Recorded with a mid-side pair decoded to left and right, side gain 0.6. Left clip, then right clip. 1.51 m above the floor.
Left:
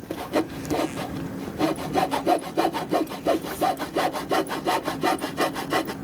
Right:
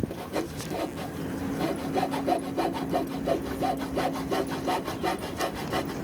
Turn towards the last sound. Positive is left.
turn(degrees=40)